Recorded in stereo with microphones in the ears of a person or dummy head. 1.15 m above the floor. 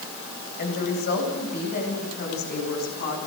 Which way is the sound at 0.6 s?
50° left (ahead or behind).